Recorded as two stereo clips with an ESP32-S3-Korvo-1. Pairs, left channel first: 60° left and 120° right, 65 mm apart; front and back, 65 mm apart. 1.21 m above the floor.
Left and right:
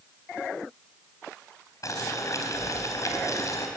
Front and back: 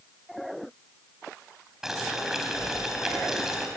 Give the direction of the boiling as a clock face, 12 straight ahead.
9 o'clock.